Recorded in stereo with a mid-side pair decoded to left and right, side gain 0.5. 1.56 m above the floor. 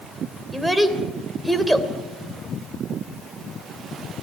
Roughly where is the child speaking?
Ahead.